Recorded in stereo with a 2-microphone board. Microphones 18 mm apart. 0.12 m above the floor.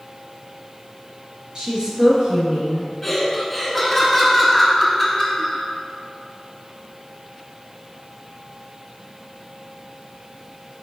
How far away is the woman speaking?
About 1.9 m.